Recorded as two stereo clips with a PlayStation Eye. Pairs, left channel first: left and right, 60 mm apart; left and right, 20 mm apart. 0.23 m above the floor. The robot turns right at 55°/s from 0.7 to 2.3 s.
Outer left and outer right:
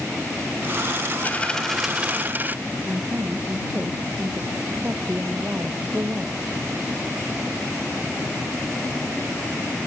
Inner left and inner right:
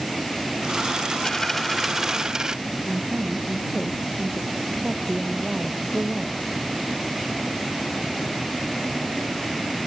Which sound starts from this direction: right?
A woman speaking, at 2.9 s.